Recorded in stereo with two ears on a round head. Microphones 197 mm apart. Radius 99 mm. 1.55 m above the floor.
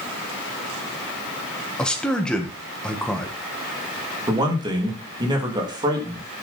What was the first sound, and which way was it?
A man speaking, 5° left (ahead or behind).